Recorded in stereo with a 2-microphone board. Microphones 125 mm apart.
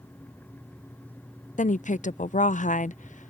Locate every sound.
1.6 s a woman speaking: 80° left